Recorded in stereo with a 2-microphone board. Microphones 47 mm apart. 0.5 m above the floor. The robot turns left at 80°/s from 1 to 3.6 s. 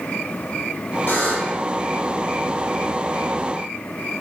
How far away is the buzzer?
About 4 m.